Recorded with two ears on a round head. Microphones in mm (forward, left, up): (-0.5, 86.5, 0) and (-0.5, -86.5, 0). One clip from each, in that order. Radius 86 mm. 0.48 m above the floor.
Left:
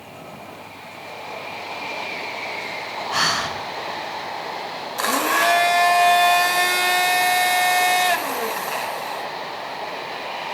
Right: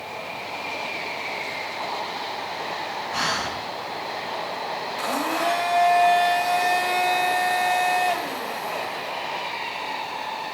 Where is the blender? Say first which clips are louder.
Left 7 dB; 50° left (ahead or behind), 0.5 m.